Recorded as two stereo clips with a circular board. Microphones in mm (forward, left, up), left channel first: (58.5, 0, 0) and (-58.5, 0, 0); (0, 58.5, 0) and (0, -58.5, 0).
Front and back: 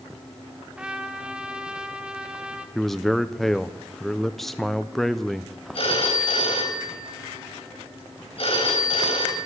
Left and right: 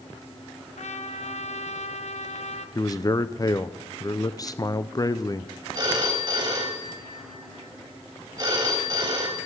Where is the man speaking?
85° left, 0.5 m.